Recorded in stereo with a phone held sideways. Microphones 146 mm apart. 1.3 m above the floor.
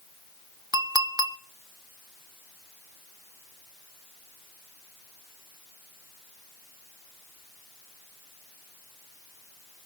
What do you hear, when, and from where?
0.7 s a clink: 25° right (ahead or behind), 0.8 m